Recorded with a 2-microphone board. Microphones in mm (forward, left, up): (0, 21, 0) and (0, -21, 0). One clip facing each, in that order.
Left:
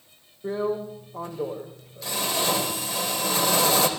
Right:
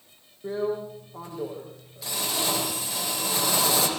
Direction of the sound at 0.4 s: 5° right (ahead or behind).